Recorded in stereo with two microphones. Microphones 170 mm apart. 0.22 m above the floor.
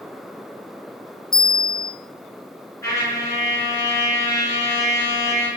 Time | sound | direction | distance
1.3 | a bell | 5° left (ahead or behind) | 0.6 m
2.8 | a trumpet | 20° left (ahead or behind) | 1.8 m